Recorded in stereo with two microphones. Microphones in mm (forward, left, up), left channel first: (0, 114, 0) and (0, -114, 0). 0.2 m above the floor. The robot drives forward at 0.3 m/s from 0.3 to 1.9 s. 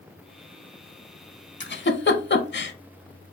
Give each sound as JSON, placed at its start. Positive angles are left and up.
{"t": 1.6, "sound": "a giggle", "side_deg": 55, "distance_m": 0.5}